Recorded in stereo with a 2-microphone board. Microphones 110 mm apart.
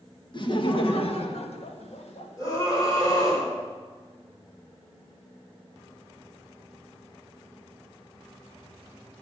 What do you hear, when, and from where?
0.3 s laughter: 45° left (ahead or behind), 1.5 m; by 2.6 s 75° left (ahead or behind), 2.5 m
2.4 s a scream: 35° left (ahead or behind), 4.5 m